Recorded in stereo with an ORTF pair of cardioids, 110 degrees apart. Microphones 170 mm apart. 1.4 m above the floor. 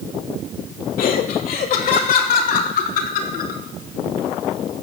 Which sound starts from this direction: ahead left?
Laughter, at 1.0 s.